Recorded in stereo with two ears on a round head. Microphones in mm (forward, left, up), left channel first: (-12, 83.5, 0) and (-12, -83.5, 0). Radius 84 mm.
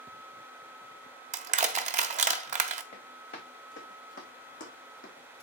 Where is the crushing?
40° right (ahead or behind), 1.2 m.